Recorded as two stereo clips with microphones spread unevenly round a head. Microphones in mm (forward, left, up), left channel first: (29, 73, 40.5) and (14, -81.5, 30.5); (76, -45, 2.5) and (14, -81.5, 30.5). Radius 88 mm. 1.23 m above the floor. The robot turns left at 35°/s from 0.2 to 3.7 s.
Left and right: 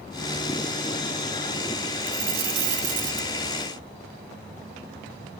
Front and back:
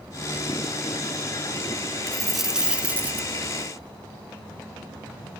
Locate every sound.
2.1 s a dropped coin: 65° right, 2 m; by 3.3 s 110° right, 2 m